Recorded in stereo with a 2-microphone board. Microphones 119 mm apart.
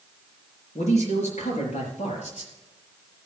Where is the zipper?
No zipper in this recording.